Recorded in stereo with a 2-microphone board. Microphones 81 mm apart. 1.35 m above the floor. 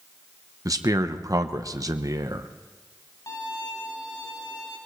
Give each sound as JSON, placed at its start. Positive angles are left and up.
{"t": 0.7, "sound": "a man speaking", "side_deg": -45, "distance_m": 0.8}
{"t": 3.3, "sound": "a violin", "side_deg": 55, "distance_m": 4.0}